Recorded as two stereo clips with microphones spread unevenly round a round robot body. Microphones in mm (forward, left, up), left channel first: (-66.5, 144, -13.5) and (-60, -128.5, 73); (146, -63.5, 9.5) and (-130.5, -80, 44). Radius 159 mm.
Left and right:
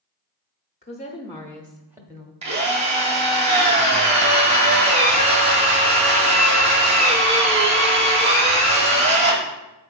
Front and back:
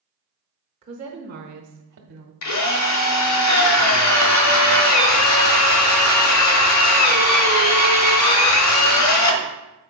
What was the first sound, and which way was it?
A woman speaking, 115° left.